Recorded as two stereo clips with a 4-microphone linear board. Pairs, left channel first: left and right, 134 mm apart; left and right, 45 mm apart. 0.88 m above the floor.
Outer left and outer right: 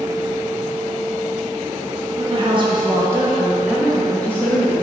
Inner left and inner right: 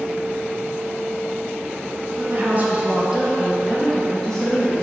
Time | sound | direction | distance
2.2 | a woman speaking | 45° right (ahead or behind) | 1.3 m